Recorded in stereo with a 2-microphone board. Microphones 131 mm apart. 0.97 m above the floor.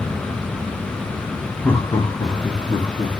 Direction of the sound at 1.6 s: 10° left (ahead or behind).